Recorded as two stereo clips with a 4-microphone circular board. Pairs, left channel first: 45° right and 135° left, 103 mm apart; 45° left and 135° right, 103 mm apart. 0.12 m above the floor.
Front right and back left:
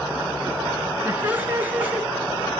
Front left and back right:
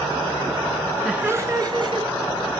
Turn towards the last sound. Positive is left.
turn(degrees=-150)